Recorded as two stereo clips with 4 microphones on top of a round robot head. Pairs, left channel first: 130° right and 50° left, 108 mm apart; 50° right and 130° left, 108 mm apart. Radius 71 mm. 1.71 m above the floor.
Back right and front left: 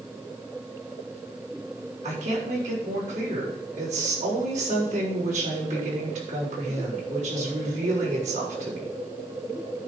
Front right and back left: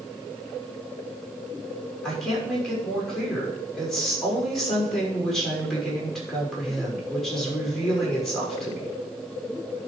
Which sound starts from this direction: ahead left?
A woman speaking, at 2.0 s.